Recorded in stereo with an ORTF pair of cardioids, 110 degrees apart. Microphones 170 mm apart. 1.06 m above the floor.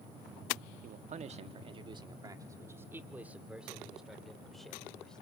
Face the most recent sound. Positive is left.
turn(degrees=5)